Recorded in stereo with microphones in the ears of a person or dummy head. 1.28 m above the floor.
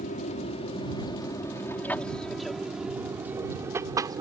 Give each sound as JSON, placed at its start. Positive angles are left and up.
{"t": 0.0, "sound": "an aircraft", "side_deg": 40}